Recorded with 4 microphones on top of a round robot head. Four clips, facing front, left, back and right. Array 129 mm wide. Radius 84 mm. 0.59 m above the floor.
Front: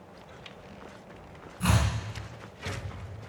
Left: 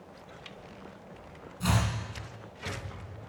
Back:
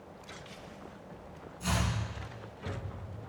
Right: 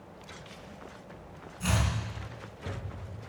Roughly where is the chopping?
Ahead.